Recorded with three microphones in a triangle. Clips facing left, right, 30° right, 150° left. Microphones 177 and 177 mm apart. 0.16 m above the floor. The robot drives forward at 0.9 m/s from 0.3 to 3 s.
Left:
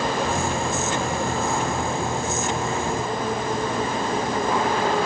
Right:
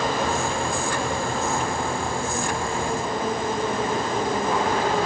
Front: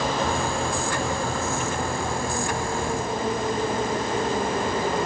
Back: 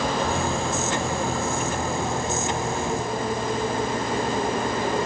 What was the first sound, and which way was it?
Only background noise.